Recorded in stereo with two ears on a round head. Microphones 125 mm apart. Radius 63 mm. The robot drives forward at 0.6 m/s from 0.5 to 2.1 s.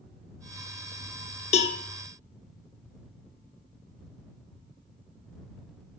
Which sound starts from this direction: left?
A cowbell, at 1.5 s.